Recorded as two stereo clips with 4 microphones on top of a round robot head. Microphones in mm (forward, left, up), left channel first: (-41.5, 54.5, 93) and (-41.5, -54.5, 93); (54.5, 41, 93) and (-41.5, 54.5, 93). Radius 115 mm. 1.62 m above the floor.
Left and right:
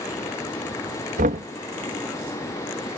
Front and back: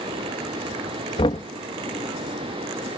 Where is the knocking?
65° right.